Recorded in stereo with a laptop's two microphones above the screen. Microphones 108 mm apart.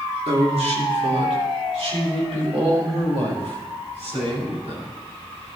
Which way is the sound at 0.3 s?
75° right (ahead or behind).